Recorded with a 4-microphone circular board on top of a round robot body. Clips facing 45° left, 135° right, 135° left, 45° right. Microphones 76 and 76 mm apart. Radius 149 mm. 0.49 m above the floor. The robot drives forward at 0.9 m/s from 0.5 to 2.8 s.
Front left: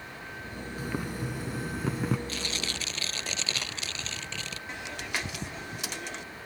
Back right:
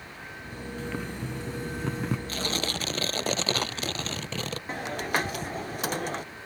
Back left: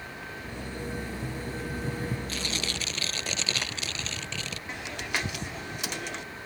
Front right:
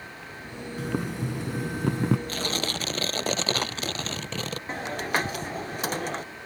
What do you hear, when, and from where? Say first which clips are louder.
0.8 s boiling: front left 1 dB, front right 7 dB; 35° right; by 2.2 s 40° right
2.3 s tearing paper: back right 4 dB, front right 4 dB; 85° right; by 4.6 s 90° right
4.7 s a hiss: back right 7 dB, front right 6 dB; 90° right